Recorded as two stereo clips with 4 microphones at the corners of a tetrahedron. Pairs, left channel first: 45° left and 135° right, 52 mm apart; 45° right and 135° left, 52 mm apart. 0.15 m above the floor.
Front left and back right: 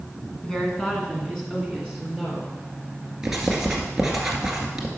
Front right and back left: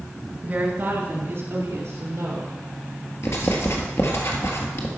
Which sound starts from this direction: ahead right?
Writing, at 3.2 s.